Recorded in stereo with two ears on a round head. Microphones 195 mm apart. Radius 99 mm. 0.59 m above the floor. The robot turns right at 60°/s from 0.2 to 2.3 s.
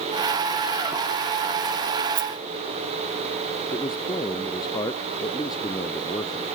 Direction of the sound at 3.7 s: 20° left (ahead or behind).